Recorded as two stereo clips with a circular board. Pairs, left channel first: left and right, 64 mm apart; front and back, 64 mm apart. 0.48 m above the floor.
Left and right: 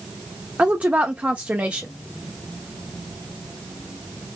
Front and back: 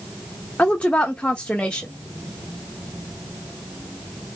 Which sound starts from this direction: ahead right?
A woman speaking, at 0.6 s.